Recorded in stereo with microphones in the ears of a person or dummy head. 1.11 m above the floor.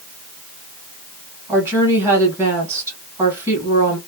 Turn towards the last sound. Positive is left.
turn(degrees=-15)  # may be behind; listen again after turning